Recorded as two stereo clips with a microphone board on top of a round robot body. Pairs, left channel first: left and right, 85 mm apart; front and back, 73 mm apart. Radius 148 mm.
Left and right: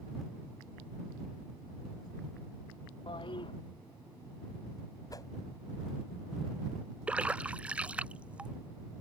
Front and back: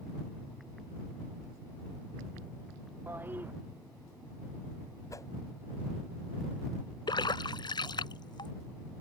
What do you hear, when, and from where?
3.1 s a toilet flushing: 115° left
5.1 s a whoosh: 45° left
7.1 s a splash: 15° right